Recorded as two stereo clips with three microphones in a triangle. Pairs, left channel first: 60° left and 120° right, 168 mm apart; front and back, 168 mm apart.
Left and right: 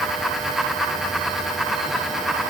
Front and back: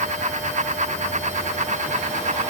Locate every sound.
Only background noise.